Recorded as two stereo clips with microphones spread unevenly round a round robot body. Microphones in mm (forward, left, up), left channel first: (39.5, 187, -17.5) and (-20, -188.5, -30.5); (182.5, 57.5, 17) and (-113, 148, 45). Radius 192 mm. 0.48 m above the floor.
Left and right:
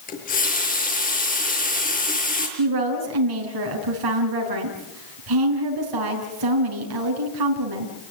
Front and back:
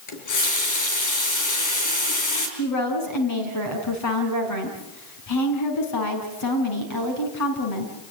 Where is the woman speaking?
60° right, 5 m.